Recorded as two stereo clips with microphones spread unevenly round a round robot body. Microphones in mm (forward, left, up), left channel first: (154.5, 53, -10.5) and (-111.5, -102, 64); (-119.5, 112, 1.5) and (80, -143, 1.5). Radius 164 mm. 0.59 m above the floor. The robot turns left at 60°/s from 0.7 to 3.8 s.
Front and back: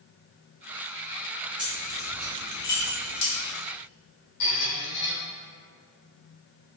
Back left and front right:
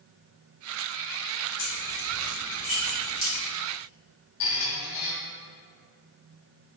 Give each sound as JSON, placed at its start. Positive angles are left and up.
{"t": 1.6, "sound": "keys jangling", "azimuth_deg": 120, "distance_m": 1.4}
{"t": 4.4, "sound": "a squeak", "azimuth_deg": 75, "distance_m": 1.4}